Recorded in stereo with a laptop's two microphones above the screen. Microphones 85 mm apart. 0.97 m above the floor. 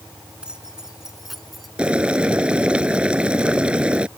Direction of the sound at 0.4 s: 10° right (ahead or behind).